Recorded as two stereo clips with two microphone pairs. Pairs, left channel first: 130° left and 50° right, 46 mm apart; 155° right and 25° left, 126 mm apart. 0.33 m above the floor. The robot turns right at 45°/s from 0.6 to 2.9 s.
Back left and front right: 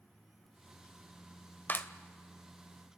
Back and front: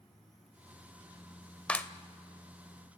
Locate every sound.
1.7 s a clap: 135° left, 0.7 m; by 1.9 s 145° left, 0.7 m